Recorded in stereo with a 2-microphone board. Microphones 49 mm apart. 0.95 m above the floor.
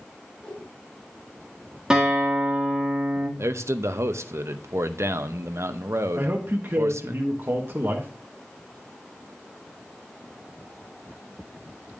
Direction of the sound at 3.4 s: 60° right (ahead or behind).